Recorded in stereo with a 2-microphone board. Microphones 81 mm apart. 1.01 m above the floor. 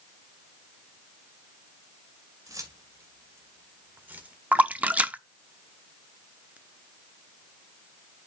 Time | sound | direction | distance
2.5 | keys jangling | 50° right (ahead or behind) | 2.5 m
4.5 | a splash | 20° right (ahead or behind) | 0.6 m